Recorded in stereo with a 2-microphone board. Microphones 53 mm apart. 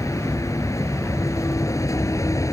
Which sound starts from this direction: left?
A vehicle, at 0.0 s.